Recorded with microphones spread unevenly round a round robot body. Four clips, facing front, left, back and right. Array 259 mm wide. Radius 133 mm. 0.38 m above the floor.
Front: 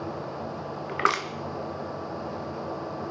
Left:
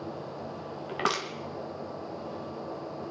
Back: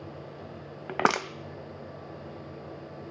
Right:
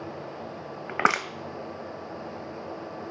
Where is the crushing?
165° right, 0.6 m.